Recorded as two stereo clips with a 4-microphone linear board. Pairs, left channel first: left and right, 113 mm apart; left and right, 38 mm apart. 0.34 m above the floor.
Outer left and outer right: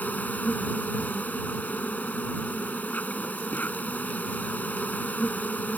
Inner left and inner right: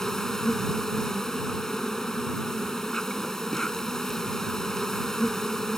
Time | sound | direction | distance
0.0 | an insect | 15° left (ahead or behind) | ?